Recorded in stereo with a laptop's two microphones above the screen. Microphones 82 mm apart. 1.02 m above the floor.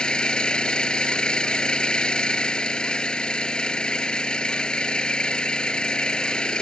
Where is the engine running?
10° left (ahead or behind).